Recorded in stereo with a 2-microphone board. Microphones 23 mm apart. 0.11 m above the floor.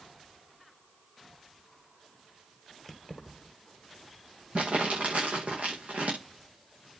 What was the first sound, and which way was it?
Keys jangling, centre (ahead or behind).